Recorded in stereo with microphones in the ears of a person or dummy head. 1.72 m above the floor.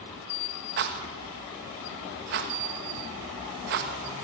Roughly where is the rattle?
Right.